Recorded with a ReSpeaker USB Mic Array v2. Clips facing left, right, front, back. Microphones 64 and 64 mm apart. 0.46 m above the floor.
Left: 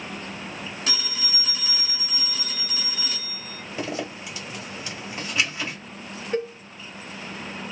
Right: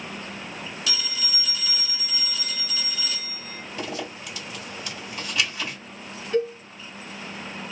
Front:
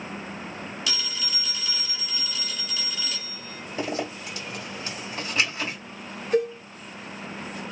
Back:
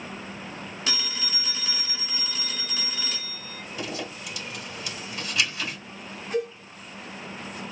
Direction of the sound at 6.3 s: 30° left.